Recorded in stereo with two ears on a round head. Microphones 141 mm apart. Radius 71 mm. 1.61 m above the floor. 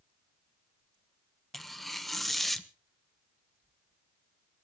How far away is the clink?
No clink in this recording.